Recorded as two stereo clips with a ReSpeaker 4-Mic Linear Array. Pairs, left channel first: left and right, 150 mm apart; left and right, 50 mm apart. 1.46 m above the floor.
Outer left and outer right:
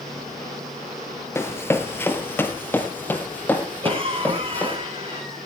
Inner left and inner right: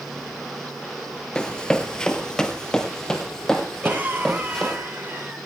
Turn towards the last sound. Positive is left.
turn(degrees=-35)  # may be behind; listen again after turning